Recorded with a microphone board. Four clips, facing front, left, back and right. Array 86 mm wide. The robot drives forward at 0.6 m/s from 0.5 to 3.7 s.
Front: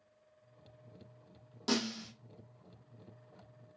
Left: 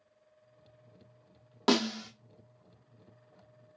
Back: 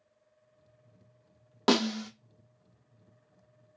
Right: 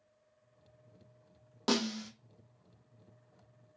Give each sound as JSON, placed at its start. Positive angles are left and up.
{"t": 1.7, "sound": "a snare drum", "azimuth_deg": 150, "distance_m": 0.5}